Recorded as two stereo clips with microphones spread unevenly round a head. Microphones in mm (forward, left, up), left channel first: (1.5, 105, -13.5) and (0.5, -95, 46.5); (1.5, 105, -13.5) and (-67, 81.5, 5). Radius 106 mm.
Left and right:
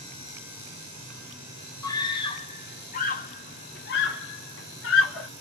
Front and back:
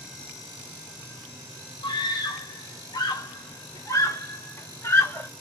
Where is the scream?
15° left, 1.5 m; by 5.3 s 75° left, 2 m.